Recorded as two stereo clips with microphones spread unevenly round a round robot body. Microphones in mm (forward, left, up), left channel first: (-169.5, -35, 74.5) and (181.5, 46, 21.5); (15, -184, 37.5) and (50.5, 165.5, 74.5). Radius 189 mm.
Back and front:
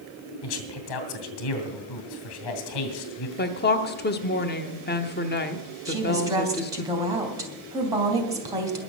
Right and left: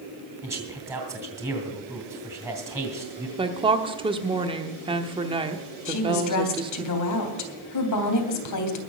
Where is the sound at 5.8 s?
65° right, 3 m.